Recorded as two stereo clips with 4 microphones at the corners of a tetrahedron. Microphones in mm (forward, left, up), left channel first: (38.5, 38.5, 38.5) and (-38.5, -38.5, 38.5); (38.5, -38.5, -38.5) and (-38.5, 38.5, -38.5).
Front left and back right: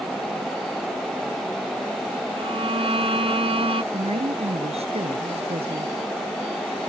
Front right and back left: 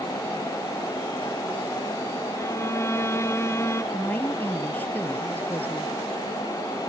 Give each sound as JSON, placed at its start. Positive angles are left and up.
{"t": 2.4, "sound": "a violin", "azimuth_deg": -110}
{"t": 3.9, "sound": "a woman speaking", "azimuth_deg": -120}